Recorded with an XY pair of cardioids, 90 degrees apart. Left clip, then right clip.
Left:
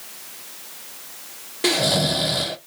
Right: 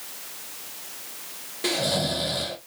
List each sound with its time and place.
1.6 s snoring: 50° left, 0.9 m